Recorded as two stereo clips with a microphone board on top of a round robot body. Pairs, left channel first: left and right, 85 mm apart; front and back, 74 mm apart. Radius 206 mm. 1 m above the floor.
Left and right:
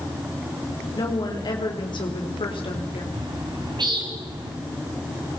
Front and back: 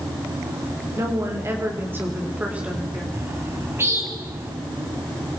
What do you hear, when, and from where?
0.9 s a woman speaking: 130° left, 4.5 m; by 3.0 s 100° left, 4.5 m
3.1 s a bird: 125° right, 3 m